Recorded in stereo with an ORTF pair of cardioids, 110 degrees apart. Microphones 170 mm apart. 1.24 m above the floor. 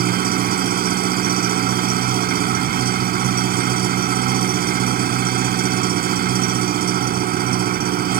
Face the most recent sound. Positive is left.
turn(degrees=-60)